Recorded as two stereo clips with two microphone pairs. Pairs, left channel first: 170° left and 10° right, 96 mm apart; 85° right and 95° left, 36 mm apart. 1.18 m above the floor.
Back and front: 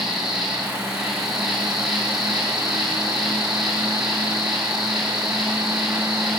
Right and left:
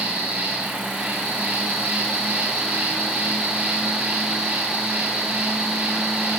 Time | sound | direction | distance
0.0 | an insect | 75° left | 3.5 m